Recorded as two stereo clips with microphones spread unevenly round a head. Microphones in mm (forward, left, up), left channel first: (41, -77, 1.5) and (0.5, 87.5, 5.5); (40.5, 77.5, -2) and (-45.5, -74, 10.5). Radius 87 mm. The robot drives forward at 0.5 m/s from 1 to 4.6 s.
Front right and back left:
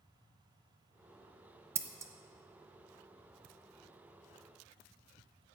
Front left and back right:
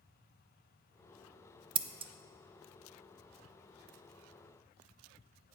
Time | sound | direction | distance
1.8 | scissors | straight behind | 0.5 m